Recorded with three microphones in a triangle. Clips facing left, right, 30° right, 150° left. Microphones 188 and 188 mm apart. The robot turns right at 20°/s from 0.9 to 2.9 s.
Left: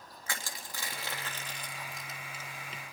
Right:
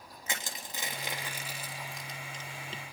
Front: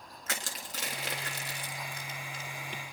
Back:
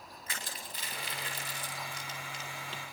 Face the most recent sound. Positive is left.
turn(degrees=20)